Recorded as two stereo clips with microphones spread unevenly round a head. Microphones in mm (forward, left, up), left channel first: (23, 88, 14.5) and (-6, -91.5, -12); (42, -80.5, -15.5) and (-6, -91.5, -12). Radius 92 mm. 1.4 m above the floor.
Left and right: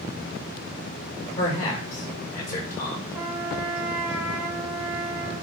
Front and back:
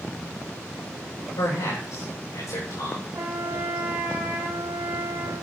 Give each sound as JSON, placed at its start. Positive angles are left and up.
{"t": 1.4, "sound": "a man speaking", "azimuth_deg": 35, "distance_m": 5.5}
{"t": 3.1, "sound": "a trumpet", "azimuth_deg": 170, "distance_m": 2.0}